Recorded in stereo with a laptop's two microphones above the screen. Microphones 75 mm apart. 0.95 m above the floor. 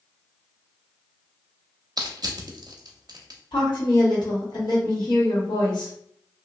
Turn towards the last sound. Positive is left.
turn(degrees=75)  # may be behind; listen again after turning